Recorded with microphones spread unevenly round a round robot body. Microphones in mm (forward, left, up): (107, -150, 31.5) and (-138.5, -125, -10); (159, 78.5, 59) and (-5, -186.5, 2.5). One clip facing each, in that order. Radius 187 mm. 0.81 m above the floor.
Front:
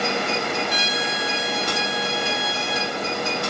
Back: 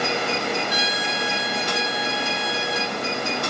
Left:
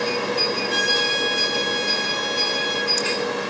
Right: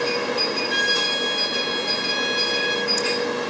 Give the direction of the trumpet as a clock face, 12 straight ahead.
2 o'clock.